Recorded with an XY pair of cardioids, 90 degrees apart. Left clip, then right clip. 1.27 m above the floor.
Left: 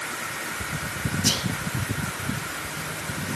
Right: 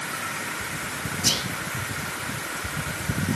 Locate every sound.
1.2 s whispering: 5° right, 0.7 m